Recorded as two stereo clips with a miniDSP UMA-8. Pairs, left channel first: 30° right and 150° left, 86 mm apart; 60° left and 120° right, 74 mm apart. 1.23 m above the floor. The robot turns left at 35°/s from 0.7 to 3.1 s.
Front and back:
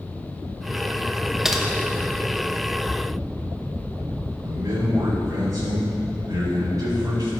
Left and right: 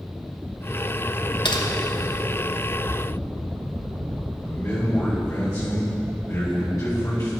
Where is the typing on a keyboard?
65° left, 1.1 m; by 1.6 s 60° left, 1.1 m.